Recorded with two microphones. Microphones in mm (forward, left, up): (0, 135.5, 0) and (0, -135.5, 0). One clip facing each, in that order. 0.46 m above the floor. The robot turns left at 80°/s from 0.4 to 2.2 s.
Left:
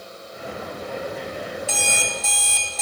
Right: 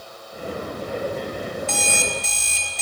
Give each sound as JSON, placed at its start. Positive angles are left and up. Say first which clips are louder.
{"t": 1.7, "sound": "an alarm clock", "louder": "right 2 dB", "azimuth_deg": 10, "distance_m": 1.4}